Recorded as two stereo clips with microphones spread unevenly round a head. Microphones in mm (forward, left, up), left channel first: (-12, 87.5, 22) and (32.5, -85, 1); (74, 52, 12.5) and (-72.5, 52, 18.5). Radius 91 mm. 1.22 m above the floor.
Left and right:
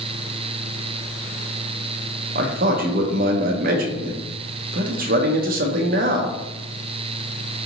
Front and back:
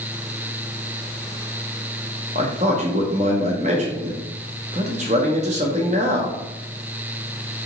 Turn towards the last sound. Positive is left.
turn(degrees=-125)